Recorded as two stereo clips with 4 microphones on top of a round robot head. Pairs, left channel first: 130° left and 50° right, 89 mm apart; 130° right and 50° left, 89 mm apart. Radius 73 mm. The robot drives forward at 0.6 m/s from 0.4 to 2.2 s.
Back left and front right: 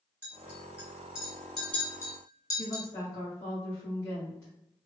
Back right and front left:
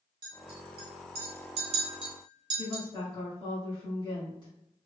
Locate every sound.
0.2 s a clink: 20° left, 1.3 m; by 2.8 s 85° left, 0.7 m
2.6 s a woman speaking: 170° right, 2.0 m